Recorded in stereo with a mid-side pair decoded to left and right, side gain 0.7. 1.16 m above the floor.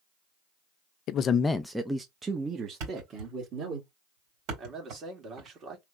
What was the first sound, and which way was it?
A man speaking, 55° left.